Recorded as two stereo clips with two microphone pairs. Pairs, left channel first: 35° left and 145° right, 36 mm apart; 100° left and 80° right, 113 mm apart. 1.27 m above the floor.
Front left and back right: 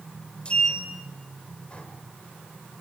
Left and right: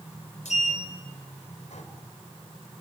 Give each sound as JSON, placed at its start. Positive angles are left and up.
{"t": 0.5, "sound": "a sliding door", "azimuth_deg": 95, "distance_m": 4.5}